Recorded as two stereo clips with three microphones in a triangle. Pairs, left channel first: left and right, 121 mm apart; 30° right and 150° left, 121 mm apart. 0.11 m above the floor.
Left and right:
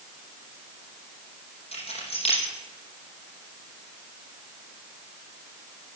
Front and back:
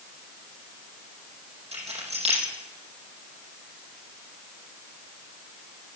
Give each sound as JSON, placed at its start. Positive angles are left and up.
{"t": 1.7, "sound": "keys jangling", "azimuth_deg": 125, "distance_m": 3.5}